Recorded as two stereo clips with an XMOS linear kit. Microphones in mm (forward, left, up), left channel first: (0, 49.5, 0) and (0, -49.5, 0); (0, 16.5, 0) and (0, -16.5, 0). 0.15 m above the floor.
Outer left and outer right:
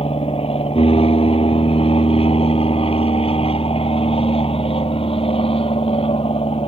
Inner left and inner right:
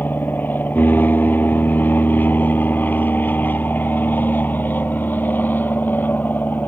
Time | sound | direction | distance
0.0 | an aircraft | 65° left (ahead or behind) | ?